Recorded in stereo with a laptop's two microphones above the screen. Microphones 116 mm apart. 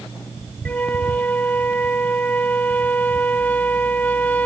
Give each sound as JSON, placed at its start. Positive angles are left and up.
{"t": 0.7, "sound": "a flute", "side_deg": 15}